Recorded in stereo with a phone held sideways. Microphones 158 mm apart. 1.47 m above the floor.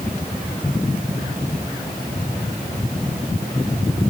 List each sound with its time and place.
Only background noise.